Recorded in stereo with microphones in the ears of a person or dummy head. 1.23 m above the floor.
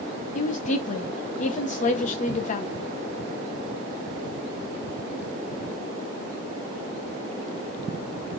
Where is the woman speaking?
45° left (ahead or behind), 0.6 m.